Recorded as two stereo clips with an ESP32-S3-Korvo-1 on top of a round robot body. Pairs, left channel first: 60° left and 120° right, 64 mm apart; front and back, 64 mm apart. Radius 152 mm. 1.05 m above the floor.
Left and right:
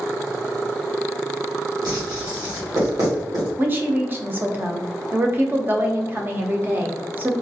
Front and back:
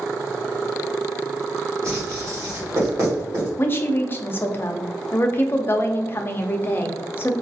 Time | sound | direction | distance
1.8 | writing | 140° right | 1.9 m
3.6 | a woman speaking | 60° right | 0.6 m